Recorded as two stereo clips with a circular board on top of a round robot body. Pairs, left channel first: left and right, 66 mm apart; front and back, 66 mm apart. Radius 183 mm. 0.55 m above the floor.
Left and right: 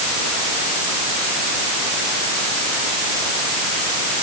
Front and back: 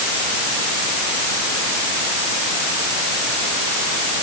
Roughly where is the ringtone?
No ringtone in this recording.